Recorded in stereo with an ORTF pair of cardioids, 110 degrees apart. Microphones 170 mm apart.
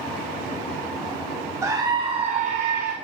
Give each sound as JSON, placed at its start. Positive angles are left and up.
{"t": 1.6, "sound": "a scream", "azimuth_deg": -15, "distance_m": 1.1}